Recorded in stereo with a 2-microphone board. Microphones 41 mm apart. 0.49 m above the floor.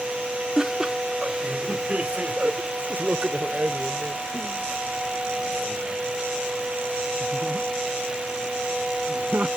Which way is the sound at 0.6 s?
15° right (ahead or behind).